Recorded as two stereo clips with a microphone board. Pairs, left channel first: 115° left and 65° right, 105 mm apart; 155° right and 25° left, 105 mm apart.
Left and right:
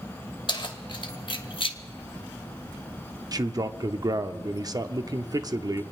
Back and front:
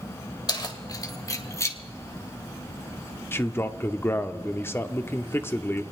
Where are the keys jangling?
155° left, 1.6 m; by 1.8 s 140° left, 1.0 m.